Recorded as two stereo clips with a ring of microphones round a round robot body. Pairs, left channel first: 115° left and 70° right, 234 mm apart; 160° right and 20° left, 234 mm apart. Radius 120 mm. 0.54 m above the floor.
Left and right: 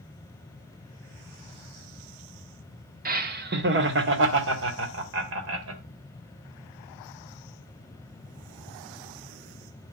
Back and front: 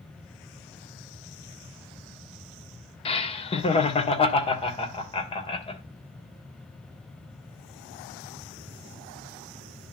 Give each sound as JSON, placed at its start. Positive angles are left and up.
{"t": 3.0, "sound": "laughter", "azimuth_deg": -100, "distance_m": 1.2}